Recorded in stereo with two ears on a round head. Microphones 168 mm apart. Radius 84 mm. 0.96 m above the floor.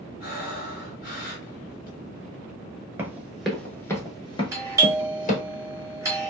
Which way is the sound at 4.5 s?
15° right (ahead or behind).